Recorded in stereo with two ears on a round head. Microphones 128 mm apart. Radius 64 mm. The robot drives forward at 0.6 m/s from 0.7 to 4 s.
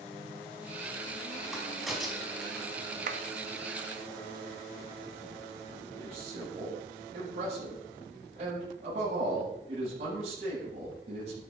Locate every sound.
1.5 s a crack: centre (ahead or behind), 3.5 m
3.1 s a clap: 60° right (ahead or behind), 1.2 m
6.0 s a man speaking: 50° right (ahead or behind), 9 m